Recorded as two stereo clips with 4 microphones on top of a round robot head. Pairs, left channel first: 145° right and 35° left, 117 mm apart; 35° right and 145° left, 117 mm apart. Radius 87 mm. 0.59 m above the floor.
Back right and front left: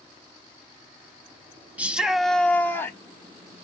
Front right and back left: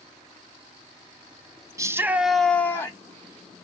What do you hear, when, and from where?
1.8 s a shout: 105° left, 0.6 m; by 3.0 s 85° right, 0.7 m